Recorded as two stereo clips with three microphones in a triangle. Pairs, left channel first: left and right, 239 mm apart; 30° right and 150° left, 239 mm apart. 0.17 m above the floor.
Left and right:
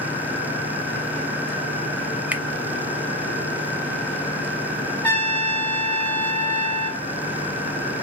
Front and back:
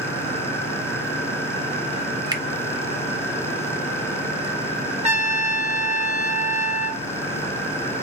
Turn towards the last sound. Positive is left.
turn(degrees=165)